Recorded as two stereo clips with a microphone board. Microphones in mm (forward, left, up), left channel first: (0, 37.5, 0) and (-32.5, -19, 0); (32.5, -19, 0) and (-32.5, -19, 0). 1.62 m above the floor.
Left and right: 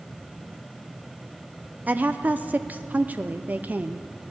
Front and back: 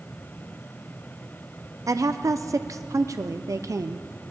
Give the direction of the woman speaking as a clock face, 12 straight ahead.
6 o'clock.